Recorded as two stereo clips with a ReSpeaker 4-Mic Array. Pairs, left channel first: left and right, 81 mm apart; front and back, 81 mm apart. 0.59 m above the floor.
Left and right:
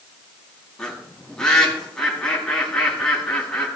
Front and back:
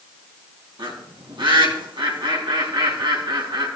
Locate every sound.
0.8 s a bird: 175° left, 3.5 m